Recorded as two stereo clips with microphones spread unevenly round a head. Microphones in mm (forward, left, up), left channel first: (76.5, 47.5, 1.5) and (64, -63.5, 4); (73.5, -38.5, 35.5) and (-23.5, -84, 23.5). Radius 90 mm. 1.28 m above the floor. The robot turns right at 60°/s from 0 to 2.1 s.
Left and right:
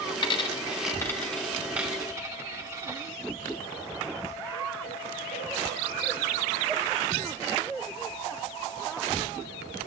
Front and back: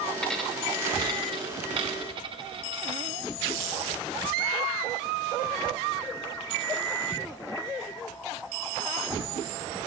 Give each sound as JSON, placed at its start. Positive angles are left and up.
{"t": 0.2, "sound": "a dropped coin", "azimuth_deg": 100, "distance_m": 1.0}